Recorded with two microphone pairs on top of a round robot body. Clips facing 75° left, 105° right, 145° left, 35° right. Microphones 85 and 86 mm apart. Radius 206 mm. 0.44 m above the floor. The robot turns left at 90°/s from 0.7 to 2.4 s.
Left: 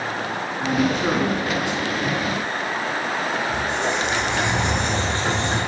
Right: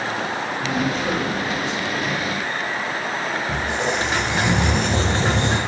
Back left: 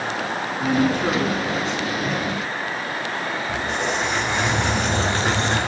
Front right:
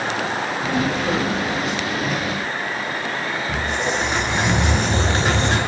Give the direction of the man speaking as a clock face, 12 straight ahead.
7 o'clock.